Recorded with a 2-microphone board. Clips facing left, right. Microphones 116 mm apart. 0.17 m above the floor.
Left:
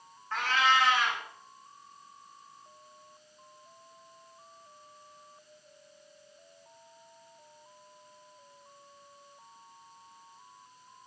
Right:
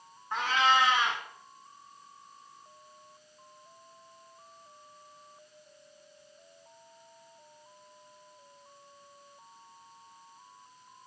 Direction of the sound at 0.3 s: 15° right (ahead or behind).